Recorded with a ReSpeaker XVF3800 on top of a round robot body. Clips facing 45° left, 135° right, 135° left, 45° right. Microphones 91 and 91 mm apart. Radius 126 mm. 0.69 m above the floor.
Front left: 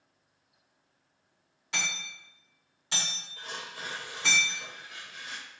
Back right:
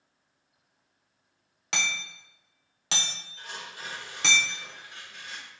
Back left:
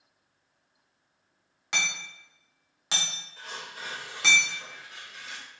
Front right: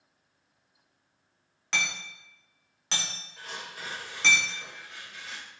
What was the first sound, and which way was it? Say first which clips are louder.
Hammering: back right 3 dB, even; 145° right.